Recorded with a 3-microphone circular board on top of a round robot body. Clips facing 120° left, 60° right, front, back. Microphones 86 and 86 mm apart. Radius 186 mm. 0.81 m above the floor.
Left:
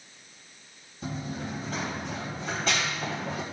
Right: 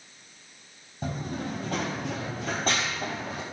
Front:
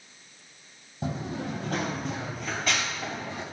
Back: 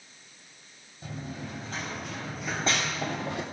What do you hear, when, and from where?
1.0 s running footsteps: 15° right, 2.0 m; by 3.4 s 150° right, 1.7 m